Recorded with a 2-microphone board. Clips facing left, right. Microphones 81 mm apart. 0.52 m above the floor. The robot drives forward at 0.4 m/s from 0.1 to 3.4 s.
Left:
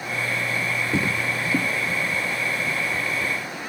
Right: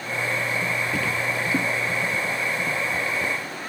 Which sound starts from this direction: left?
Footsteps, at 0.9 s.